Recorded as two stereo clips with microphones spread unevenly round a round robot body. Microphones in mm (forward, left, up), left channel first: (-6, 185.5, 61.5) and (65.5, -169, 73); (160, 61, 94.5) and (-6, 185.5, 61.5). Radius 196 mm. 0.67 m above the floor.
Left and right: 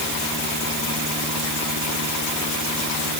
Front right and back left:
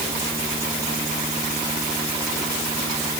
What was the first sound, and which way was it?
Only background noise.